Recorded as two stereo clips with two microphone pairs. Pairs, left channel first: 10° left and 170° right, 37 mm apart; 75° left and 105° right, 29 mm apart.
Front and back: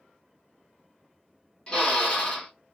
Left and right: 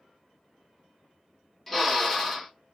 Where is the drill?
15° left, 1.3 m.